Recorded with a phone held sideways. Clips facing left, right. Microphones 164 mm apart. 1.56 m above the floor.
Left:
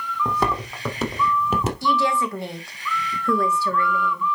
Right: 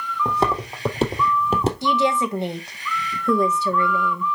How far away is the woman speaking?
About 1.6 m.